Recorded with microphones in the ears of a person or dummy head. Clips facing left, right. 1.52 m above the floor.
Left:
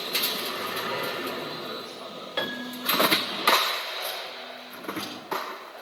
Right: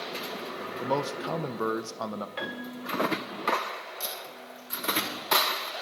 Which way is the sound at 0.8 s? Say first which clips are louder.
Right 5 dB; 70° right (ahead or behind).